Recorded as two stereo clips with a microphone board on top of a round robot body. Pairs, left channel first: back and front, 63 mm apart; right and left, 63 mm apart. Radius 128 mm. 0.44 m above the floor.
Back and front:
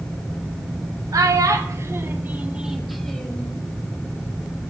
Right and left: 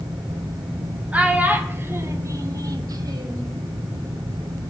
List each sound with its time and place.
1.1 s a child speaking: 20° left, 1.3 m; by 3.5 s 110° left, 1.1 m